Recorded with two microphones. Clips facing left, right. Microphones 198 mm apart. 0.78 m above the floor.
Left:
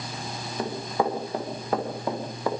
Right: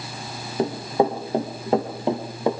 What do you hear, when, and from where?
0.6 s running footsteps: 25° right (ahead or behind), 7.5 m; by 2.5 s 20° right (ahead or behind), 6 m